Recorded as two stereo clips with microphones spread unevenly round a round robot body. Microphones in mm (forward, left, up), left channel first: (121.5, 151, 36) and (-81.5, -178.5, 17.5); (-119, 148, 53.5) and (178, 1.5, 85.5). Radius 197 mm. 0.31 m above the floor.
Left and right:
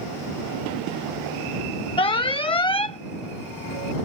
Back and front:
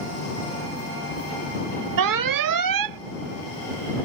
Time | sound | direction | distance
2.0 | an alarm | 20° right | ?